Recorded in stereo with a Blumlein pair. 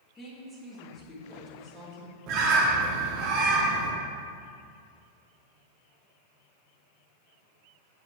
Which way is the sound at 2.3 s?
40° right.